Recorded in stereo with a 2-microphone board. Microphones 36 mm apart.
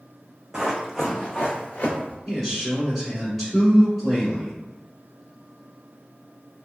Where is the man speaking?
Centre (ahead or behind), 1.6 m.